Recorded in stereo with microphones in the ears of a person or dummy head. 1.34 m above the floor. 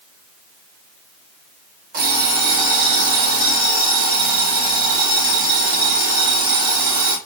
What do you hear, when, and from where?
1.9 s an alarm clock: 45° right (ahead or behind), 1.3 m